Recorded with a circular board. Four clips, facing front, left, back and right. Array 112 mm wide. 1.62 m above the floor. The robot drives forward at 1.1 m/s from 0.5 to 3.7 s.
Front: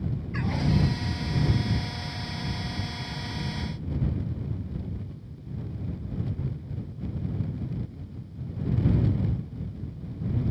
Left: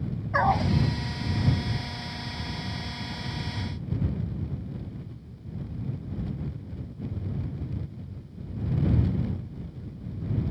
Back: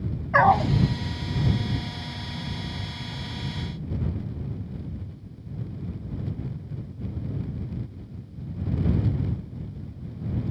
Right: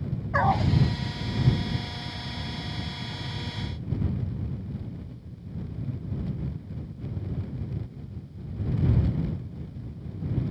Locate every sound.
0.3 s a dog barking: 175° left